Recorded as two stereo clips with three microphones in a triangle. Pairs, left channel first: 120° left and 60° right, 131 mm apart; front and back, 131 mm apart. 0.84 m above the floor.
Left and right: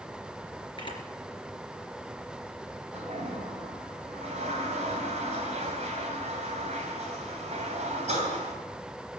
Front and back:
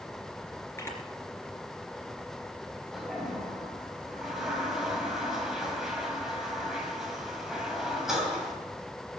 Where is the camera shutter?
70° left, 3 m.